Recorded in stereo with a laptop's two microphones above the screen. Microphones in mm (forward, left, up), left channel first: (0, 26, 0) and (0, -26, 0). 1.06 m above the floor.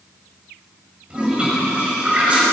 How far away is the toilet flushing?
About 6 m.